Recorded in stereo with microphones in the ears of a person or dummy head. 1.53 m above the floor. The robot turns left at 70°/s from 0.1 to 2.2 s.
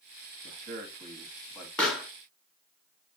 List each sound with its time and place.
0.4 s a man speaking: 70° right (ahead or behind), 1.1 m; by 1.7 s 10° left (ahead or behind), 1.1 m
1.8 s a pop: 15° left (ahead or behind), 1.0 m; by 2.1 s 5° right (ahead or behind), 1.0 m